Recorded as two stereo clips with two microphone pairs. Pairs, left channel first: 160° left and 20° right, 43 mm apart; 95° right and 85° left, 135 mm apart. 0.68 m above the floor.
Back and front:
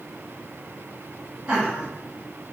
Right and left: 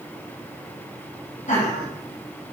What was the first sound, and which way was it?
Laughter, 80° right.